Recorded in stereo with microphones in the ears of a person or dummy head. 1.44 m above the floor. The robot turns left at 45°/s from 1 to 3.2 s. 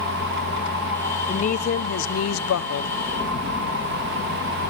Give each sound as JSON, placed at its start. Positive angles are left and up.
{"t": 1.3, "sound": "a woman speaking", "azimuth_deg": 140, "distance_m": 0.8}